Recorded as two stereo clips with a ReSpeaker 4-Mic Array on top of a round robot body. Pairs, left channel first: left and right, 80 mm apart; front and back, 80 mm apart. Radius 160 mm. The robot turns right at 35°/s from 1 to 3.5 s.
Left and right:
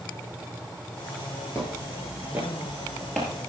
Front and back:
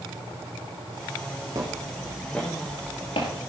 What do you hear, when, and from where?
1.6 s footsteps: 140° left, 1.2 m; by 3.3 s 10° left, 1.5 m